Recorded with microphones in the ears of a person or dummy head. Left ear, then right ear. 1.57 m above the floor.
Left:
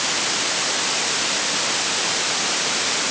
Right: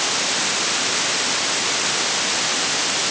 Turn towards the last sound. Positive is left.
No sound to turn to.